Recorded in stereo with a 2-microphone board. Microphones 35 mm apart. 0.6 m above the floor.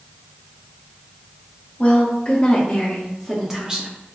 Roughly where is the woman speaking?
Left.